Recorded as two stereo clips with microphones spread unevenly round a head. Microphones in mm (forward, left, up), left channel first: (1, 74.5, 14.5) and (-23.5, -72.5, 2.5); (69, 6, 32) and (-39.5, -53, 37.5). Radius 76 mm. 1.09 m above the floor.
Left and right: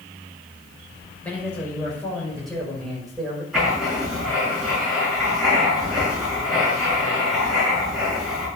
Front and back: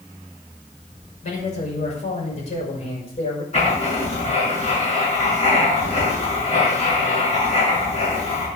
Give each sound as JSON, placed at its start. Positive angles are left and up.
{"t": 1.2, "sound": "a man speaking", "azimuth_deg": 0, "distance_m": 5.5}
{"t": 3.5, "sound": "writing", "azimuth_deg": -10, "distance_m": 6.0}